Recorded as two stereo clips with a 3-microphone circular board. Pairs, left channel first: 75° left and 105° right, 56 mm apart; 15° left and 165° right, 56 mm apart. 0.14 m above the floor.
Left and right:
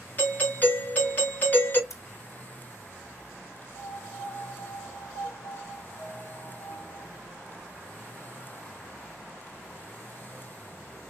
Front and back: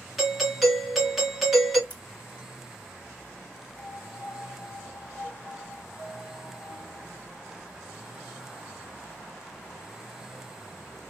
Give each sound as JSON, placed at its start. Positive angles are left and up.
{"t": 0.2, "sound": "a doorbell", "azimuth_deg": 105, "distance_m": 1.9}
{"t": 1.9, "sound": "scissors", "azimuth_deg": 85, "distance_m": 2.5}
{"t": 3.7, "sound": "a piano", "azimuth_deg": 75, "distance_m": 1.6}